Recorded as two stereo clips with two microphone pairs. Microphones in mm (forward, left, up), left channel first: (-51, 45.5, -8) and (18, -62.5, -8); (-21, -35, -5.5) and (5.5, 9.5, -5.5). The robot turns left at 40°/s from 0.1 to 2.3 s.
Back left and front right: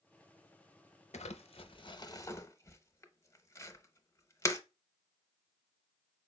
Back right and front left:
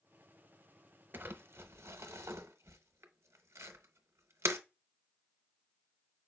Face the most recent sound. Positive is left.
turn(degrees=55)